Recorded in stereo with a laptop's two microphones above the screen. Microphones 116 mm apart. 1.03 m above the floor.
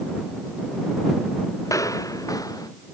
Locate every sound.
1.6 s footsteps: 30° left (ahead or behind)